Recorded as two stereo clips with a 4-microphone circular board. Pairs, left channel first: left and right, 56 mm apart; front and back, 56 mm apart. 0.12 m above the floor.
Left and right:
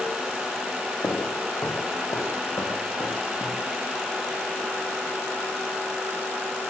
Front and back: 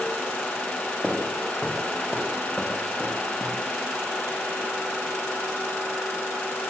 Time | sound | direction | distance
1.0 | footsteps | 95° left | 4.5 m